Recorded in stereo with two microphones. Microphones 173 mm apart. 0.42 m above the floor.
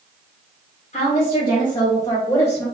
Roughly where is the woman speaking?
Left.